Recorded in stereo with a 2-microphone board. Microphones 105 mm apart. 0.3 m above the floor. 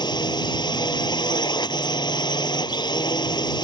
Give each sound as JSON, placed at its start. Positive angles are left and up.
{"t": 0.0, "sound": "a drone", "side_deg": 45}